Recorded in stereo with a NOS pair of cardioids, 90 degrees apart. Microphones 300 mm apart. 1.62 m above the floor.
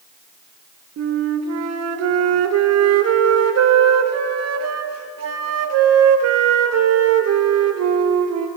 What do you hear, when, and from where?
1.0 s a flute: 60° right, 1.1 m